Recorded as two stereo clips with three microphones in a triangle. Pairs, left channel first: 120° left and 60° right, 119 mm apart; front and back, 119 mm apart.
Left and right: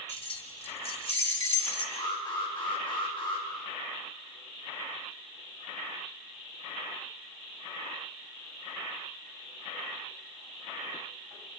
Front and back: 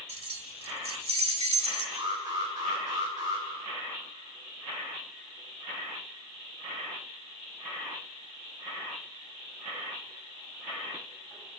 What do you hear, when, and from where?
0.1 s keys jangling: 150° left, 1.1 m
1.9 s an alarm: 140° left, 2 m